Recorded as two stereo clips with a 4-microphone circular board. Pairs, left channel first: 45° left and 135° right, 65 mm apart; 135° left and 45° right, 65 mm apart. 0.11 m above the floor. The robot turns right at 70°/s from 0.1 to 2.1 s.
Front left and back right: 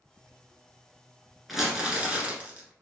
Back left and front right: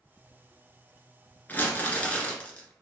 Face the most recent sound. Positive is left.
turn(degrees=180)